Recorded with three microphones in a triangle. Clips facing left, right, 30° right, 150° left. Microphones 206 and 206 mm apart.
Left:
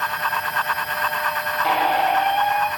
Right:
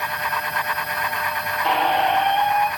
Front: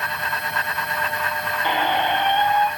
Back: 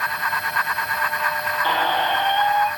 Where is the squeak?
5° left, 0.6 m.